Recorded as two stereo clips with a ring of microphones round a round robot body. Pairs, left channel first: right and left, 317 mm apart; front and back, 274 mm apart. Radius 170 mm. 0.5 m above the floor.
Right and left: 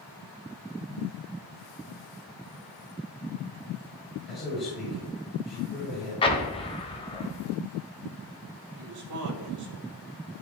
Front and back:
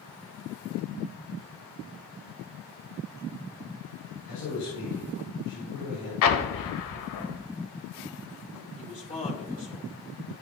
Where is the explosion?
15° right, 0.9 m.